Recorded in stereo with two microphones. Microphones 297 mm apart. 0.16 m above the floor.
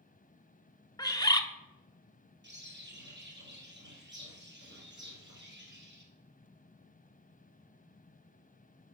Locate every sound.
1.0 s a bird: 15° left (ahead or behind), 0.6 m
2.4 s a bird: 35° right (ahead or behind), 1.7 m